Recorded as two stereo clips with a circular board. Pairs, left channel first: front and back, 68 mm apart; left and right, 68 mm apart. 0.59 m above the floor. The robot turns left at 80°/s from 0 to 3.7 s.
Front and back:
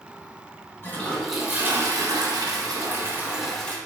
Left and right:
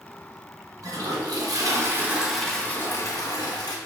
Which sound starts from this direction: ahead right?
A toilet flushing, at 0.8 s.